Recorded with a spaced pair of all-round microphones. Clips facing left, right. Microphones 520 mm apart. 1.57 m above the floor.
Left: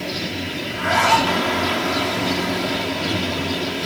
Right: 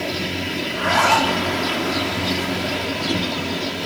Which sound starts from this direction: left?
A zipper, at 0.6 s.